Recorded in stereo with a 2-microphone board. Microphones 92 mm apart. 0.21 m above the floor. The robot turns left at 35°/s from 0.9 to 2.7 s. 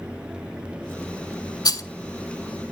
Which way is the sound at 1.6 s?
50° left (ahead or behind).